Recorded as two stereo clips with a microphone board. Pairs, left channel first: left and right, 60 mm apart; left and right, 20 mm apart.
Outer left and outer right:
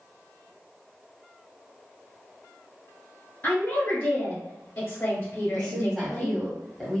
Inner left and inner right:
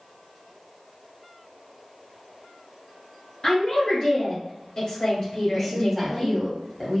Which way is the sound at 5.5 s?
5° left (ahead or behind).